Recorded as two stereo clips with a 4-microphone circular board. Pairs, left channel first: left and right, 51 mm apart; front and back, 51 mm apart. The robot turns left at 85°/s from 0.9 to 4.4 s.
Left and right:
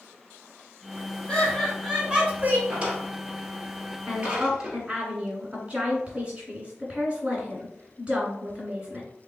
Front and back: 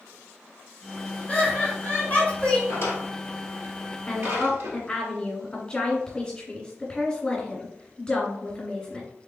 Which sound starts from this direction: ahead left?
Laughter, at 1.3 s.